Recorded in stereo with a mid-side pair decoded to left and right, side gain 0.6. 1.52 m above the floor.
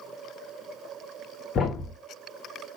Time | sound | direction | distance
1.6 | a thud | 45° left | 3 m